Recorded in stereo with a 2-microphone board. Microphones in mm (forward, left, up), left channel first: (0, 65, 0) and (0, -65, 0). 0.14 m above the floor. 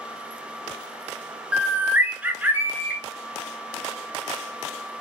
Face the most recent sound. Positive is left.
turn(degrees=-15)  # may be behind; listen again after turning